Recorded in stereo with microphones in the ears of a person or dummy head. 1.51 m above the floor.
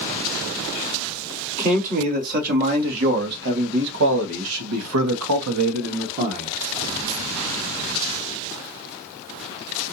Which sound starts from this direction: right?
A man speaking, at 1.6 s.